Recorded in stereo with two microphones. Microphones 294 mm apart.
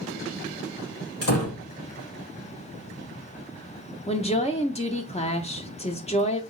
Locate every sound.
1.2 s a door slam: 55° left (ahead or behind), 1.2 m
4.1 s a woman speaking: 20° left (ahead or behind), 0.7 m